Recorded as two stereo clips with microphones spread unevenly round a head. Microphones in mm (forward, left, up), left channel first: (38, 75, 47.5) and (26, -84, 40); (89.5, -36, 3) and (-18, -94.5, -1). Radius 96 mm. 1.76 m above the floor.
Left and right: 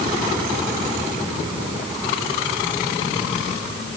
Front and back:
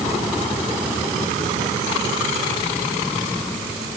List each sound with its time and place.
Only background noise.